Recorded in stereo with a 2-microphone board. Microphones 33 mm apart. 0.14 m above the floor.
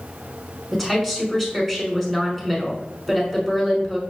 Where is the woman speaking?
5° left (ahead or behind), 1.3 m.